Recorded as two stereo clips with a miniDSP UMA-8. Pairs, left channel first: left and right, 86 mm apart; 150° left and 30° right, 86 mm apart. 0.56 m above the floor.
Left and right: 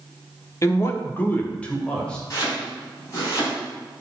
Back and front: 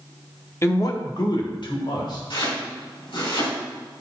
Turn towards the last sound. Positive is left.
turn(degrees=140)